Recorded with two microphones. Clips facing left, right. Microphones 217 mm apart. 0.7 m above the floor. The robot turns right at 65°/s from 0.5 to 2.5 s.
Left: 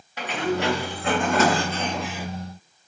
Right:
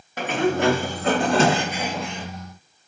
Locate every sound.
0.2 s a sliding door: 100° right, 0.6 m; by 2.3 s 20° left, 0.6 m